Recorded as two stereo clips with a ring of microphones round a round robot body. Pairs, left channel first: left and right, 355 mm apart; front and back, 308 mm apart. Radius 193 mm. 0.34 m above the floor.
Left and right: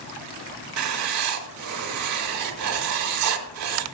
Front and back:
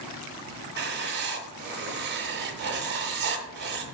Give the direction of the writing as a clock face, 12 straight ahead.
4 o'clock.